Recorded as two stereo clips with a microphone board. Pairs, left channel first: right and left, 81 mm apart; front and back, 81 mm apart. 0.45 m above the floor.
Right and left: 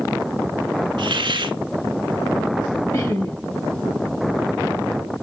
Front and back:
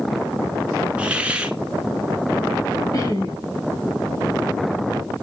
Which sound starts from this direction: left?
A hiss, at 1.0 s.